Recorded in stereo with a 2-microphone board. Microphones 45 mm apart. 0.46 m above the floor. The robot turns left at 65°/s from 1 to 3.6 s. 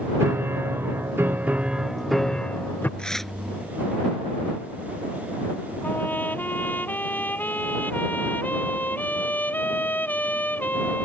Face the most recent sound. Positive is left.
turn(degrees=40)  # may be behind; listen again after turning